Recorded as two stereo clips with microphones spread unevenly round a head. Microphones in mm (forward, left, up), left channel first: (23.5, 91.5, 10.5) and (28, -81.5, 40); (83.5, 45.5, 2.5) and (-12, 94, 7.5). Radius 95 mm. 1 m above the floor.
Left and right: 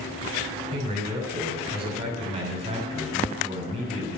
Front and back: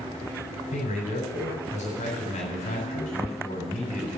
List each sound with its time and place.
0.7 s a man speaking: 30° right, 7.5 m